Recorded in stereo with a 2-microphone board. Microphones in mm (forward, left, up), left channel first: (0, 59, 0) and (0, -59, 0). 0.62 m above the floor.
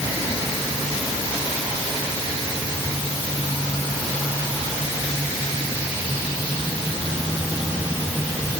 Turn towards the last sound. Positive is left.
No sound to turn to.